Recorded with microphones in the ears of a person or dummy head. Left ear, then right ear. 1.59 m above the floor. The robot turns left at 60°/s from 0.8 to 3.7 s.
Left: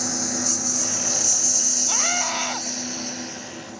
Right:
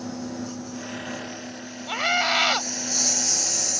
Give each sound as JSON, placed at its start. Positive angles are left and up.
{"t": 0.0, "sound": "a lawn mower", "azimuth_deg": 125}
{"t": 1.9, "sound": "a scream", "azimuth_deg": 0}